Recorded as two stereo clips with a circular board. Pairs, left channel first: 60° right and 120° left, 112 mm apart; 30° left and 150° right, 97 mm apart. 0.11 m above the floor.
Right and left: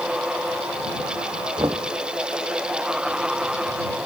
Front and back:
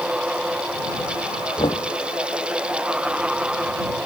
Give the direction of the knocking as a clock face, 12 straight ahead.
10 o'clock.